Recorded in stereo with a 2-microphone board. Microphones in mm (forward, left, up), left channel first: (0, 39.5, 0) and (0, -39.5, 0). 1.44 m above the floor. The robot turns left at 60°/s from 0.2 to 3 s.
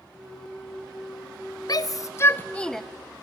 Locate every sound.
1.7 s a shout: 50° left (ahead or behind), 0.5 m; by 2.8 s centre (ahead or behind), 0.5 m